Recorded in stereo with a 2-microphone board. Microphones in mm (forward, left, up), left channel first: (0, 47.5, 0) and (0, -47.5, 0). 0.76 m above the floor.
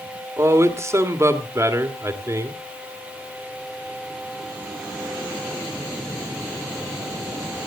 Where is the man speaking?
30° right (ahead or behind), 1.9 m.